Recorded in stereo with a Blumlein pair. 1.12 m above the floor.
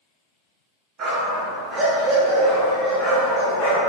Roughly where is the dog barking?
Ahead right.